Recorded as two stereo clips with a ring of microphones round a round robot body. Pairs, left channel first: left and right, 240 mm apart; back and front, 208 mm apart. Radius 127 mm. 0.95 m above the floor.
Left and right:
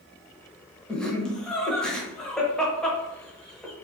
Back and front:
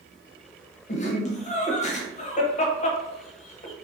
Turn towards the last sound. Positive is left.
turn(degrees=175)